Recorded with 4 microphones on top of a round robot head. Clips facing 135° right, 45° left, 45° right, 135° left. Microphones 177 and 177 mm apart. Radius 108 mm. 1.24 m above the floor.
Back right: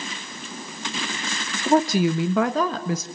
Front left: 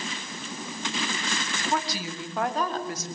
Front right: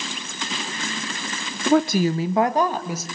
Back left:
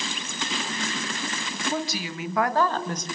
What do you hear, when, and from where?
1.7 s a woman speaking: 70° right, 1.0 m; by 3.1 s 130° right, 2 m